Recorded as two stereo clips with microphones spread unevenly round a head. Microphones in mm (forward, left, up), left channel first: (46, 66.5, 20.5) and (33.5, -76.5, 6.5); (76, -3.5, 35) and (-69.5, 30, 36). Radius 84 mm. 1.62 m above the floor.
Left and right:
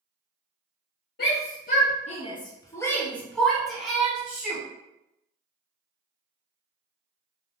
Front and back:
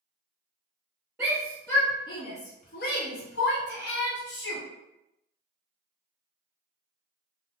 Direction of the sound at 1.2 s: 90° left.